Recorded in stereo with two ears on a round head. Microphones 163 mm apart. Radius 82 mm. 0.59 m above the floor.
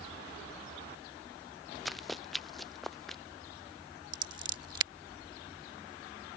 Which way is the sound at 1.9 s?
Centre (ahead or behind).